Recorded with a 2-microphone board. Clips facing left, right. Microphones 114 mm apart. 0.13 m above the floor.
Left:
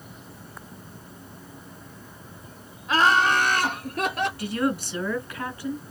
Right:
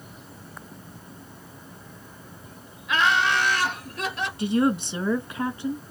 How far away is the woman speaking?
About 1.2 m.